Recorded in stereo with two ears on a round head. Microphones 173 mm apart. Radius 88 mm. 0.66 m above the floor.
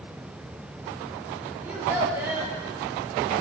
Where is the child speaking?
15° right (ahead or behind), 4 m.